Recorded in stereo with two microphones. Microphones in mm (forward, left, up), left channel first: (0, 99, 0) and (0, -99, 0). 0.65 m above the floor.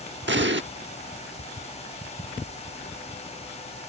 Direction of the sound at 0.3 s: 70° right (ahead or behind).